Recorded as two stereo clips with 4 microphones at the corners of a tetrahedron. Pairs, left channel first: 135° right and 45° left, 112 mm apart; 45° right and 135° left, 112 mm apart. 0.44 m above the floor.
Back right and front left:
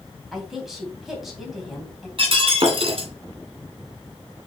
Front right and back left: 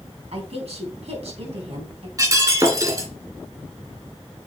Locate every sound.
0.3 s a woman speaking: 135° left, 3.5 m
2.2 s breaking glass: 75° left, 2 m